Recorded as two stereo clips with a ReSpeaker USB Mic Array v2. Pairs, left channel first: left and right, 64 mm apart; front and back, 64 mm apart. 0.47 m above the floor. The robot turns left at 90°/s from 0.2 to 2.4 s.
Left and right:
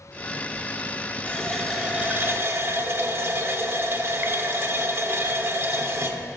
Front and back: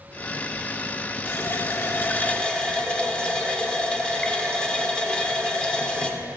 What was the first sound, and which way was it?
A running tap, 35° left.